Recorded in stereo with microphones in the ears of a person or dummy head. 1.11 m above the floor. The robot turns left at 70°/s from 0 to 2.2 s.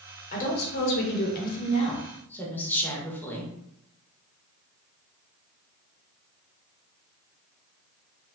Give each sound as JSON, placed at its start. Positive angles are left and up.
{"t": 0.3, "sound": "a woman speaking", "azimuth_deg": 140, "distance_m": 0.7}